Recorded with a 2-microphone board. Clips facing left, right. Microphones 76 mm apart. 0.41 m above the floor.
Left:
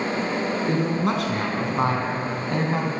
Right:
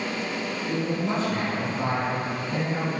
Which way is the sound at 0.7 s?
75° left (ahead or behind).